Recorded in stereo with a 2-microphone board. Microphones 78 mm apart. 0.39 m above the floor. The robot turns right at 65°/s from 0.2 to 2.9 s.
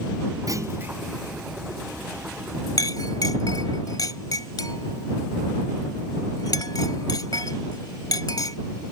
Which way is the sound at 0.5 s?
50° right.